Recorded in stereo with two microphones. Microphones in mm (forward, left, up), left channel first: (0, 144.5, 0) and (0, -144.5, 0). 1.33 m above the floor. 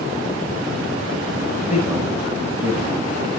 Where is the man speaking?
5° right (ahead or behind), 7 m.